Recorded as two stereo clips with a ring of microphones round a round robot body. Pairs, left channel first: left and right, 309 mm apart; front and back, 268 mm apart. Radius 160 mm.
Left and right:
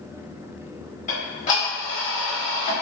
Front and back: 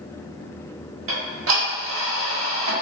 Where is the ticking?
150° left, 1.2 m.